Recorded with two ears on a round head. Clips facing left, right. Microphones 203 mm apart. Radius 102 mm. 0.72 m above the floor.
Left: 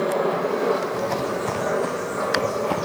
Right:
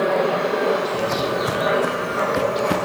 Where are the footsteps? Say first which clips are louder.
Right 3 dB; 5° right (ahead or behind), 1.5 m; by 2.8 s 25° right (ahead or behind), 4 m.